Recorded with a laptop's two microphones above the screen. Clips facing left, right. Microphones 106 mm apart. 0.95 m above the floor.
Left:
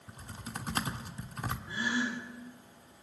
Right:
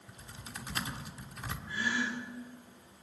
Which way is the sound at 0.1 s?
45° left (ahead or behind).